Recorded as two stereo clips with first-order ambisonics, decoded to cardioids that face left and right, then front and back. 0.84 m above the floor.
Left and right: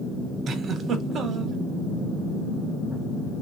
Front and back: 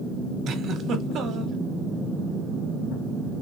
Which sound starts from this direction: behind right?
A giggle, at 0.5 s.